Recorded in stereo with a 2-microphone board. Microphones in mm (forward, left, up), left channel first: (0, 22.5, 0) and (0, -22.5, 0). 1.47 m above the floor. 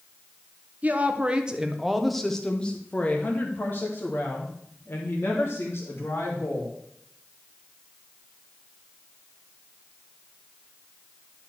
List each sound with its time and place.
0.8 s a woman speaking: 35° right (ahead or behind), 1.2 m; by 6.7 s 75° left (ahead or behind), 2.5 m